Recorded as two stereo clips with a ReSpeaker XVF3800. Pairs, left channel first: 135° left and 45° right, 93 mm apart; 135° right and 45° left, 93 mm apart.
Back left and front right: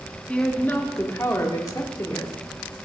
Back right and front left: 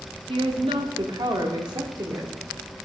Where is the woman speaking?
55° left, 1.3 m; by 2.3 s 90° left, 1.9 m.